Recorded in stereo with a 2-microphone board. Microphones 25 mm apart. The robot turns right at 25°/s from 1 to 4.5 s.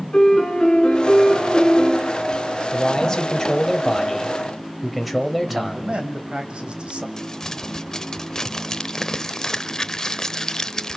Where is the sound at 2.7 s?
135° left, 1.7 m; by 6.0 s straight behind, 1.7 m.